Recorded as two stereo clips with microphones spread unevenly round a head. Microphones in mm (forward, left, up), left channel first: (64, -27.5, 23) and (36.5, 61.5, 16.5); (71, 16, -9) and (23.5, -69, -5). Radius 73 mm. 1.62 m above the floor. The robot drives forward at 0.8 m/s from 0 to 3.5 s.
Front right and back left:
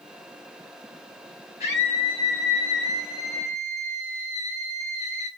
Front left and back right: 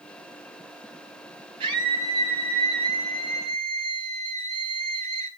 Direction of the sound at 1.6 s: 115° right.